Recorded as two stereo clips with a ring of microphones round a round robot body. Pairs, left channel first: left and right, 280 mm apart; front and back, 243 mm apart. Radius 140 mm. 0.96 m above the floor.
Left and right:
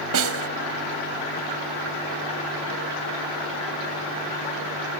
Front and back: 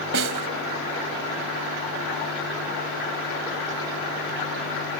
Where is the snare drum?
130° right.